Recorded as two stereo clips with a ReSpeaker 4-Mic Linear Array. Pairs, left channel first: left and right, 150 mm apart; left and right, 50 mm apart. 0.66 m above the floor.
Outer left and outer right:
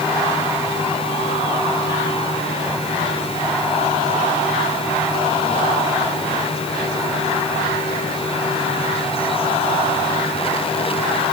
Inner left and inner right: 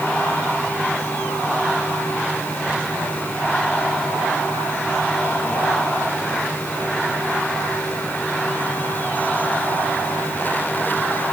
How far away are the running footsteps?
No running footsteps in this recording.